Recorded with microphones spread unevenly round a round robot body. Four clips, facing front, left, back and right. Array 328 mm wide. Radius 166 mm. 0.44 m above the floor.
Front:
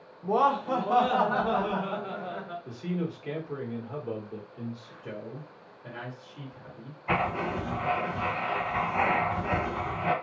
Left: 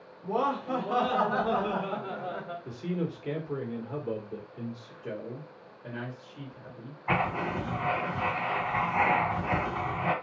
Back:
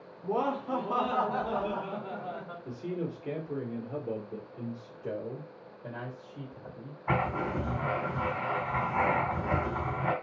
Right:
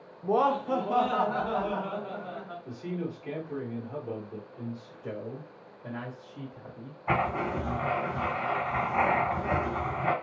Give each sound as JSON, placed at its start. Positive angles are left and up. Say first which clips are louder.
{"t": 0.2, "sound": "laughter", "louder": "right 4 dB, front 6 dB", "azimuth_deg": -70, "distance_m": 0.8}
{"t": 2.6, "sound": "a man speaking", "louder": "left 2 dB, front 1 dB", "azimuth_deg": 120, "distance_m": 1.5}
{"t": 5.0, "sound": "a man speaking", "louder": "even, back 4 dB", "azimuth_deg": -170, "distance_m": 1.6}
{"t": 7.1, "sound": "writing", "louder": "right 1 dB, front 2 dB", "azimuth_deg": -135, "distance_m": 2.0}